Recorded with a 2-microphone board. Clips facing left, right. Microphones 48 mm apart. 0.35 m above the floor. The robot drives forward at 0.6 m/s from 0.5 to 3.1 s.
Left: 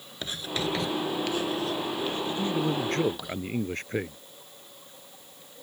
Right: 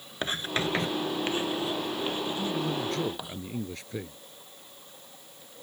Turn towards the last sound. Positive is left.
turn(degrees=50)  # may be behind; listen again after turning